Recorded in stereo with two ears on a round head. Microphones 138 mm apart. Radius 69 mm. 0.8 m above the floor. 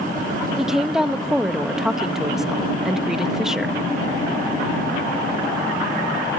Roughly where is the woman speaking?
Centre.